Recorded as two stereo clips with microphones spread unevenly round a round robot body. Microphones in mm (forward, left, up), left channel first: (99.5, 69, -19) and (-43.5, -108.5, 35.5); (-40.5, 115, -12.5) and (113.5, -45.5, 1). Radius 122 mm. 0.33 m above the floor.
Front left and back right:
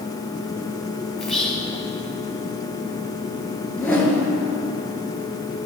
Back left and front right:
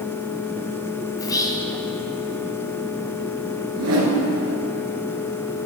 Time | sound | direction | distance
1.2 | whispering | 100° left | 0.9 m
3.7 | a whoosh | 35° right | 1.7 m